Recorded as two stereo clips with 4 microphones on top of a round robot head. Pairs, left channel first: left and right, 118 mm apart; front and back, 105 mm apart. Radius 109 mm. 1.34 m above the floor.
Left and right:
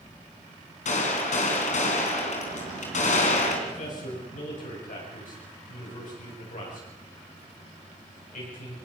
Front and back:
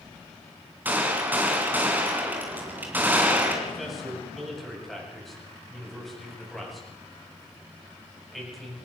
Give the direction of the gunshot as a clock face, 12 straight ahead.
8 o'clock.